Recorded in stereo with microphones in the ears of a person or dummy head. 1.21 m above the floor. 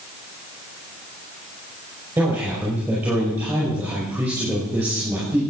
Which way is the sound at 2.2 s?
5° right (ahead or behind).